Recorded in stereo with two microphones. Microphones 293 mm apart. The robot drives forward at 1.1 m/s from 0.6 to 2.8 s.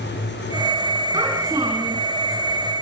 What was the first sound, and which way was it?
A child speaking, 10° right (ahead or behind).